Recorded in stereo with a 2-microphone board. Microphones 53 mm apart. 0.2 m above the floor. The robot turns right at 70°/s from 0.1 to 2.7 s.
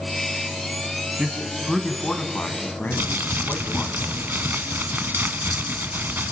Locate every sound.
1.2 s a man speaking: 30° right, 1.7 m; by 3.9 s 75° left, 1.7 m
2.9 s crumpling: 40° right (ahead or behind), 0.7 m